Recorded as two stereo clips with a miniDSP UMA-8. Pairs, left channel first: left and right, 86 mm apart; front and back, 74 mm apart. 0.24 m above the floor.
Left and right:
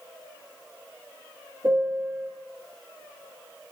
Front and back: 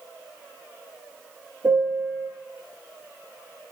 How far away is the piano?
About 2.5 m.